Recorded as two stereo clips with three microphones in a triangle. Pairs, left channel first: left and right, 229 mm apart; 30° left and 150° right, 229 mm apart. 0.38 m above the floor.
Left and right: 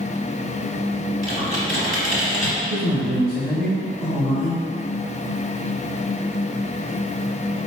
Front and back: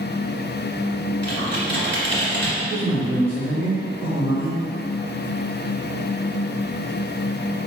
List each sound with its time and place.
1.2 s typing on a keyboard: 110° right, 1.2 m
2.6 s a man speaking: 70° right, 1.2 m